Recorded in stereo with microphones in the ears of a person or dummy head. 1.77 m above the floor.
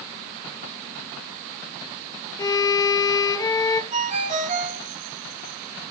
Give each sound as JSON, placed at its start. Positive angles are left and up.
{"t": 2.4, "sound": "a violin", "side_deg": 20, "distance_m": 1.5}
{"t": 3.9, "sound": "a ringtone", "side_deg": -35, "distance_m": 2.0}